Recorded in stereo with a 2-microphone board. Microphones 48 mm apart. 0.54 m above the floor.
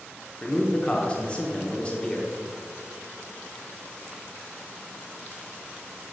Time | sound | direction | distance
0.4 | a man speaking | 25° left (ahead or behind) | 0.9 m